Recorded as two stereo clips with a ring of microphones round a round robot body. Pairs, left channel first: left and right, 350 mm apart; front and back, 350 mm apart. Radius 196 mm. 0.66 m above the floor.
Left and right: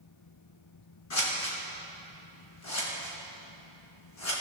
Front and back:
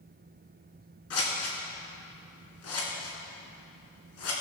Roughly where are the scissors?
Ahead left.